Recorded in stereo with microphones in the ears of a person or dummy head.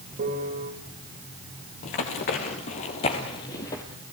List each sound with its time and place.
0.2 s a piano: 50° right (ahead or behind), 3 m
1.8 s running footsteps: 35° left (ahead or behind), 2 m; by 3.8 s 10° left (ahead or behind), 1.8 m